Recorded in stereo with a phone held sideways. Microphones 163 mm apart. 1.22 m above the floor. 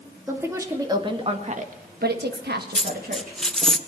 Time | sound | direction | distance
0.3 | a woman speaking | 15° right (ahead or behind) | 3 m
2.8 | a dropped coin | 5° left (ahead or behind) | 0.5 m